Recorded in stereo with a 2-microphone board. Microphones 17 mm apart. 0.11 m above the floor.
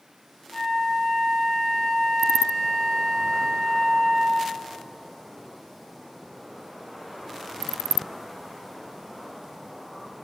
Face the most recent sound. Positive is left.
turn(degrees=70)  # may be behind; listen again after turning